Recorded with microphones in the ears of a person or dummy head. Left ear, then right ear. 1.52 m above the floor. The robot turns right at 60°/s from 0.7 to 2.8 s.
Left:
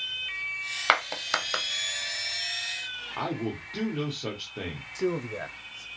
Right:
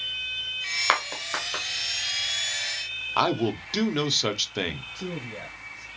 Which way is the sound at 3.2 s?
60° right (ahead or behind).